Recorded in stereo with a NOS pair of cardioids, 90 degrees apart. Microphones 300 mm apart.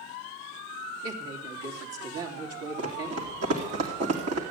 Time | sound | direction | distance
1.0 | a woman speaking | 50° right | 3 m
2.8 | running footsteps | 60° right | 3.5 m